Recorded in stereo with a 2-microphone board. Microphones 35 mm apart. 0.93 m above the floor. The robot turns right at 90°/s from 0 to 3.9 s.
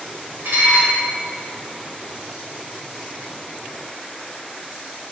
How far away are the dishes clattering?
About 2.5 m.